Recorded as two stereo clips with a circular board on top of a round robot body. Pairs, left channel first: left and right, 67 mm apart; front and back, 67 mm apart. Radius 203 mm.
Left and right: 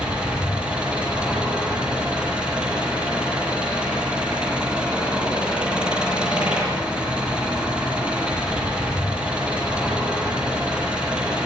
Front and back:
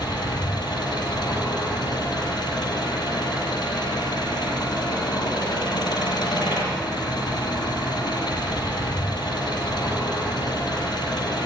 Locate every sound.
0.0 s an engine running: 15° right, 8.5 m